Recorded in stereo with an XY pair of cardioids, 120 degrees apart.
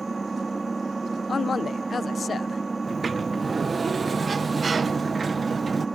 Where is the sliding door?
30° right.